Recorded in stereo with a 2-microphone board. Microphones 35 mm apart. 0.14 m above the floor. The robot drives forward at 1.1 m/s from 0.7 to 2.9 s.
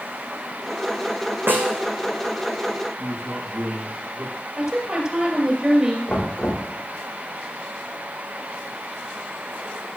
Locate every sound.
1.5 s a snare drum: 65° right (ahead or behind), 1.9 m; by 1.9 s 55° right (ahead or behind), 2 m
3.0 s a man speaking: 70° right (ahead or behind), 5.5 m
4.6 s a woman speaking: 30° right (ahead or behind), 2.5 m
6.1 s knocking: 20° left (ahead or behind), 5 m